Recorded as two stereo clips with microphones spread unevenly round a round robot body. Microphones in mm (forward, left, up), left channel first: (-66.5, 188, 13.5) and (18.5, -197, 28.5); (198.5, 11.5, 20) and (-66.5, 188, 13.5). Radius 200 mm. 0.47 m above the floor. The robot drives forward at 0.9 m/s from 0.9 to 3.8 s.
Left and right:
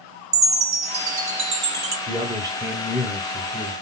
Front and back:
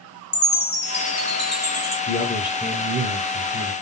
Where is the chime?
55° right, 1.5 m; by 2.0 s 130° right, 1.6 m.